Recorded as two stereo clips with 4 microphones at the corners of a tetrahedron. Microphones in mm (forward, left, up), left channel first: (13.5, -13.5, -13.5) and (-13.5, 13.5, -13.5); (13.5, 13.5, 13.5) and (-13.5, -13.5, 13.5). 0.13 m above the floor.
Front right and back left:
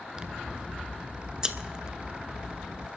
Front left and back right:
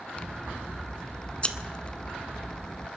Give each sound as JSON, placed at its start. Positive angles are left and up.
{"t": 0.2, "sound": "scissors", "azimuth_deg": 85, "distance_m": 0.7}